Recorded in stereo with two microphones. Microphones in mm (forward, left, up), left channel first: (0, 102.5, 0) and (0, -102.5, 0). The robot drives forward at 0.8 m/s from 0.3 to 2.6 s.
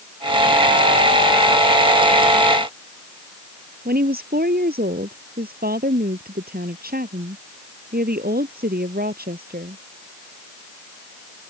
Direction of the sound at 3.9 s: 50° right (ahead or behind).